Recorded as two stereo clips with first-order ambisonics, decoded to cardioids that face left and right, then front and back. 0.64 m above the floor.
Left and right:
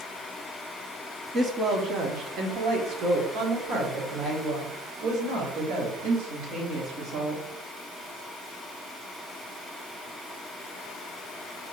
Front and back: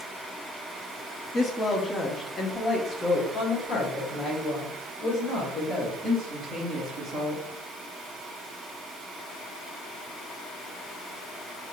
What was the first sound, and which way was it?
A woman speaking, 60° right.